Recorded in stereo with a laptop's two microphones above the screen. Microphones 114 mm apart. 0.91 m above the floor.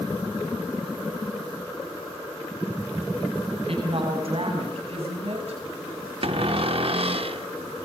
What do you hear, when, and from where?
3.5 s a woman speaking: 60° right (ahead or behind), 6.5 m; by 5.6 s 70° right (ahead or behind), 5.5 m
6.2 s a cupboard door: 60° right (ahead or behind), 1.0 m